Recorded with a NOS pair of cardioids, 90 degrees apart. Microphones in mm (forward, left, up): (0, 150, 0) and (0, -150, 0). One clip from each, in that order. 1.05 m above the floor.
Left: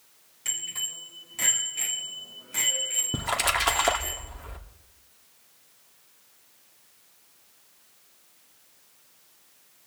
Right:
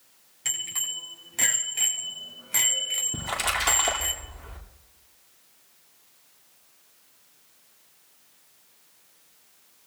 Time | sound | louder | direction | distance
0.5 | a bicycle bell | right 2 dB | 40° right | 6.5 m
3.1 | a splash | left 4 dB | 30° left | 2 m